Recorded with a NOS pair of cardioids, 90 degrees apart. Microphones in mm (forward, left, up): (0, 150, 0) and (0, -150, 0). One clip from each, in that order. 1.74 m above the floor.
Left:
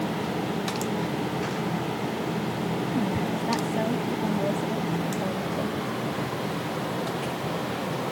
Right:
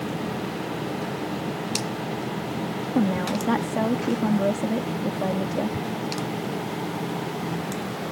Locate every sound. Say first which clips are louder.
3.0 s a woman speaking: right 3 dB; 45° right